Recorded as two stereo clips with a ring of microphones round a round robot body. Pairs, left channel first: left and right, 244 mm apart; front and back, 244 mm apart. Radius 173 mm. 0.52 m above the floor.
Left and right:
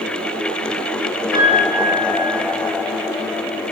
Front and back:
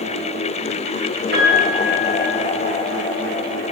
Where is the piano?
140° left, 2.5 m.